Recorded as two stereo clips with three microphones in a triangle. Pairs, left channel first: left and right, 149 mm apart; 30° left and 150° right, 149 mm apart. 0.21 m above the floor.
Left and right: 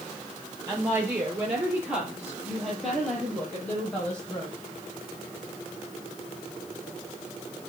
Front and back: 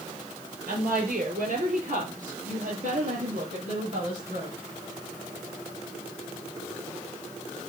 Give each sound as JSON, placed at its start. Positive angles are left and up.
{"t": 0.7, "sound": "a woman speaking", "azimuth_deg": -160, "distance_m": 4.5}